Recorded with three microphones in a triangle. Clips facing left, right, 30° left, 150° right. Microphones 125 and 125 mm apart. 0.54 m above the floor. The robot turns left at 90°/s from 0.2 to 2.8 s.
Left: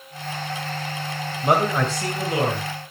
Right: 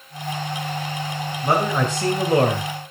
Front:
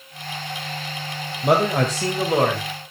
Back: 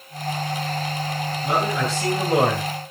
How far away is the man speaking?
About 2.0 m.